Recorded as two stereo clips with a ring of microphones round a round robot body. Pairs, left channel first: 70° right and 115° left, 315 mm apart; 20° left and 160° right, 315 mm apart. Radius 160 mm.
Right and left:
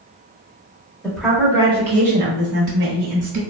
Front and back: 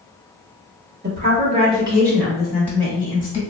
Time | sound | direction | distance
1.0 | a woman speaking | 150° right | 1.1 m